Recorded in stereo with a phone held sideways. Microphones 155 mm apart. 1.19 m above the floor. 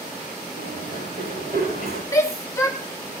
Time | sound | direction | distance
0.6 | running footsteps | 80° right | 8.5 m
2.1 | a shout | 20° left (ahead or behind) | 2.0 m